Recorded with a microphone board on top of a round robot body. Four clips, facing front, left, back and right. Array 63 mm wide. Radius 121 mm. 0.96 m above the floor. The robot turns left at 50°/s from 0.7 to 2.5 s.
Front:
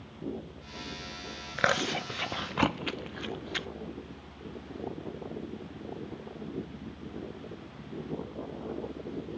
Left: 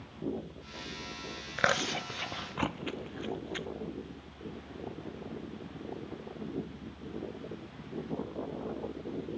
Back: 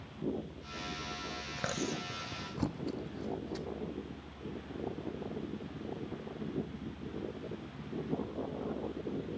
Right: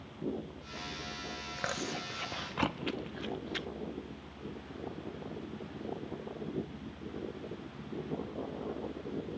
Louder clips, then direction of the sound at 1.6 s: Left 9 dB, front 10 dB; 45° left.